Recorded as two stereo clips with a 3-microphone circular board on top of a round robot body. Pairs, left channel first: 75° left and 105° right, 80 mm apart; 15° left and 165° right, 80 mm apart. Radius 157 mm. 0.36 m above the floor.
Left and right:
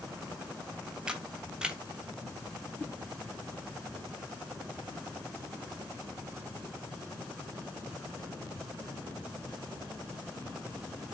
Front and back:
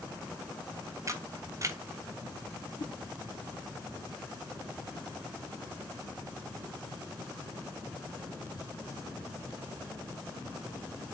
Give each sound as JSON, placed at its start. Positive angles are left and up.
{"t": 1.1, "sound": "a camera shutter", "azimuth_deg": 180, "distance_m": 1.1}
{"t": 2.8, "sound": "a whoosh", "azimuth_deg": 15, "distance_m": 0.8}